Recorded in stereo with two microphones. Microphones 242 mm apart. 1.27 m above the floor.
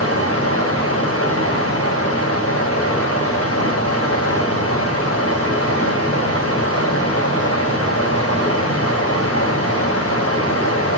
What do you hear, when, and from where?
0.0 s running water: 75° left (ahead or behind), 4 m